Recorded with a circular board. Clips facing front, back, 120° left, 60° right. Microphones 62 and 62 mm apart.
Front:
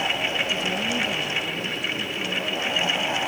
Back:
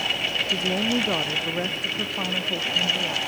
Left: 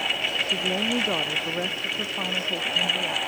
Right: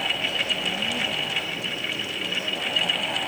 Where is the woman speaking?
135° left.